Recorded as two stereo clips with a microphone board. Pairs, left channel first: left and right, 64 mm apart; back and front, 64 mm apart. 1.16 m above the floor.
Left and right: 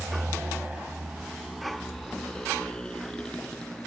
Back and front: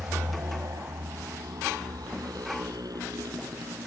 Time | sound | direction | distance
0.0 | a motorcycle | 35° right | ?